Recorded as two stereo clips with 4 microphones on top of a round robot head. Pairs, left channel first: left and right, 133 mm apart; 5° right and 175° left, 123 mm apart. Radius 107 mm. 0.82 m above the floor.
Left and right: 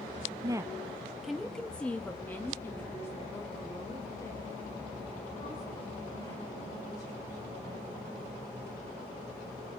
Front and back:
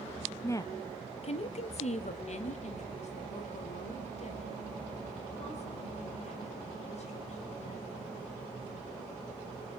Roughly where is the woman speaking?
Ahead right.